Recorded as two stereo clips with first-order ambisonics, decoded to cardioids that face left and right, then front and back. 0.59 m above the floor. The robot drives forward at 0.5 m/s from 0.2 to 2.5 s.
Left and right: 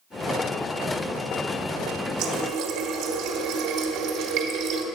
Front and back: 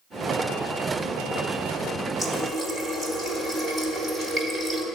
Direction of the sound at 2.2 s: 105° right.